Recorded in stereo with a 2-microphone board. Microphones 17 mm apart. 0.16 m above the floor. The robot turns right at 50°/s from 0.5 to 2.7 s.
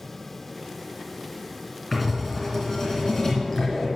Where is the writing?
15° right, 3 m; by 3.9 s 25° left, 3 m.